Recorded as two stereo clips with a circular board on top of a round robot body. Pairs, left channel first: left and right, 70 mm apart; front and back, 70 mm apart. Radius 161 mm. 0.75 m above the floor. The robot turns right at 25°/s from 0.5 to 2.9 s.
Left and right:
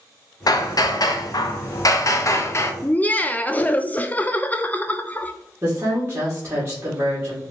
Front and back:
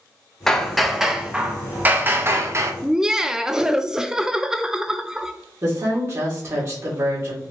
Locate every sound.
0.5 s hammering: 85° left, 0.8 m; by 2.7 s 140° left, 0.8 m
2.8 s laughter: 105° left, 0.6 m; by 5.3 s 110° left, 0.6 m
5.6 s a woman speaking: 150° right, 2.5 m